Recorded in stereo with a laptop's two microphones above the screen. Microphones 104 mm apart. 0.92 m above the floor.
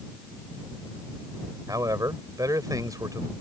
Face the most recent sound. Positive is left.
turn(degrees=-35)  # may be behind; listen again after turning